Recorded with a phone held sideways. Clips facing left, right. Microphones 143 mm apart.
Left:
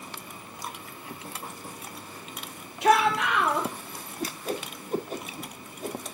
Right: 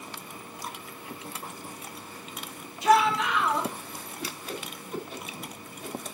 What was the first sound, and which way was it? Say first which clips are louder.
A shout: even; 65° left (ahead or behind).